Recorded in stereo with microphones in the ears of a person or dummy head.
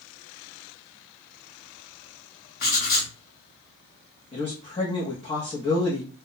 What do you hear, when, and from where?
2.6 s writing: 50° left (ahead or behind), 0.9 m
4.3 s a man speaking: 25° left (ahead or behind), 0.7 m